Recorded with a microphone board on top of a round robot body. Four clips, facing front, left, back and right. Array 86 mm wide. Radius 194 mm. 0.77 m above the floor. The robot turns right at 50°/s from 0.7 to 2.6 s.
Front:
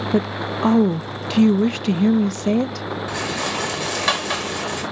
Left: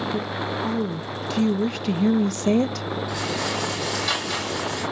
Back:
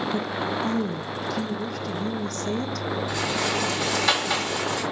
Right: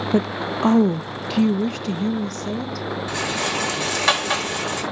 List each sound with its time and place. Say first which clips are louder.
0.1 s a woman speaking: right 5 dB, front 5 dB; 45° right, 0.6 m; by 2.9 s 50° left, 0.6 m
3.1 s a rattle: right 3 dB, front 2 dB; 55° right, 5 m